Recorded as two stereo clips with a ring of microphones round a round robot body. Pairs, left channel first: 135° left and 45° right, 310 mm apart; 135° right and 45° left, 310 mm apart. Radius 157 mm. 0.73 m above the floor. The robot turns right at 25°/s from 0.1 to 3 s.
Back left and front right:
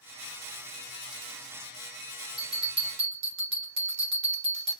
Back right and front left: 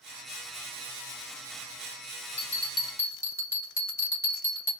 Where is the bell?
70° right, 1.7 m; by 4.7 s 55° right, 1.7 m.